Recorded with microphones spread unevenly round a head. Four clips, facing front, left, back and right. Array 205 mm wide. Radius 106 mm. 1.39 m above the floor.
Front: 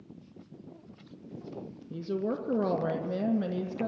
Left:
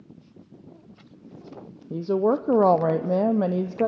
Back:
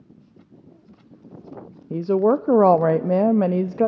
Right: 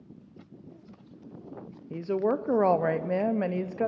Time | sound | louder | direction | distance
1.9 | a woman speaking | left 5 dB, back 14 dB | 160° left | 0.6 m